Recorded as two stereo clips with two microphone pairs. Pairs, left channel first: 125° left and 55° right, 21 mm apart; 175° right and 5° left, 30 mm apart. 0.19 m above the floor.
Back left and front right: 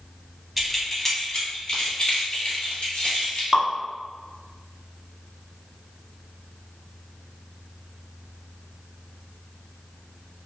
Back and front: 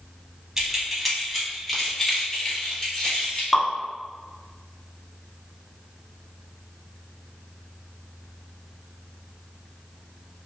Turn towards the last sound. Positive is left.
turn(degrees=-75)